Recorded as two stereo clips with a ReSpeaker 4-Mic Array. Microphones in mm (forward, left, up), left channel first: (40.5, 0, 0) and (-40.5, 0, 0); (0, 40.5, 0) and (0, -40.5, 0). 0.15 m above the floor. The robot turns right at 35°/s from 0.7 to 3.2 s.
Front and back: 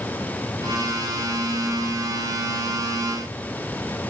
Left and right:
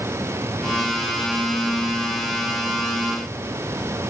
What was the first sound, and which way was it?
Only background noise.